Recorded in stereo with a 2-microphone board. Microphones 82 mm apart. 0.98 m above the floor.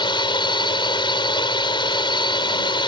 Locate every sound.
0.0 s a drone: 80° left